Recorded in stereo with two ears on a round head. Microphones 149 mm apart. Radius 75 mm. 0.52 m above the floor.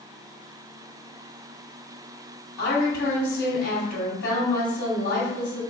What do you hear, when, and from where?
2.6 s a woman speaking: 70° left (ahead or behind), 2 m